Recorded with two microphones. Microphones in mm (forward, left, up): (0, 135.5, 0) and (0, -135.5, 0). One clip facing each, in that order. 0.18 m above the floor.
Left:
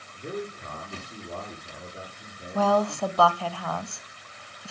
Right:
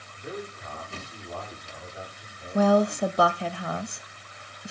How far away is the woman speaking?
About 1.1 m.